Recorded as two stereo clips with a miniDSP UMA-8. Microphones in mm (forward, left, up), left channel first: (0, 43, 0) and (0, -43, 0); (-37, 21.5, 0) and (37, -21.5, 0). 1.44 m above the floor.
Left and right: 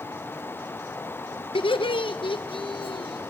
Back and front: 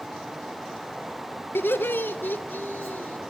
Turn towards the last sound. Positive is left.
turn(degrees=80)